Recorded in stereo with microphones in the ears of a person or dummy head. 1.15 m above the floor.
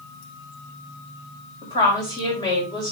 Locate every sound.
1.6 s a woman speaking: 25° left (ahead or behind), 5.5 m